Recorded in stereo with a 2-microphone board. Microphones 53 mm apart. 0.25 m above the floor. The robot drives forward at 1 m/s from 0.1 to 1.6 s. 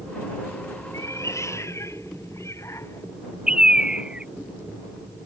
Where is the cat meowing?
75° left (ahead or behind); by 3.1 s 65° left (ahead or behind).